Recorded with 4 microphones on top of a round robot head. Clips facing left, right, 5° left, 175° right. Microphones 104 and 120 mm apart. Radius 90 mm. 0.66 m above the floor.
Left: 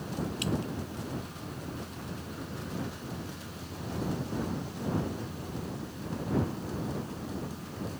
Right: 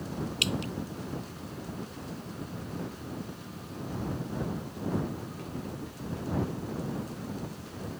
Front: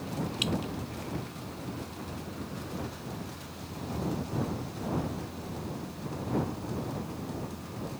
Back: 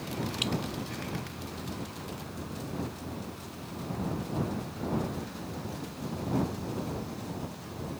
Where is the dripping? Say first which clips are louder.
Left 1 dB, front 1 dB; 85° right.